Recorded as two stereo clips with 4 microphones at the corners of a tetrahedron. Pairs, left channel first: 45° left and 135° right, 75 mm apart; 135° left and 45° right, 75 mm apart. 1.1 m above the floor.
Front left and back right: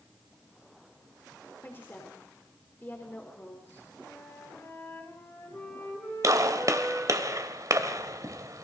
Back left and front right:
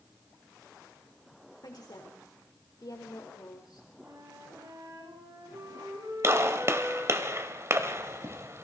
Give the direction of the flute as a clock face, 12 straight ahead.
12 o'clock.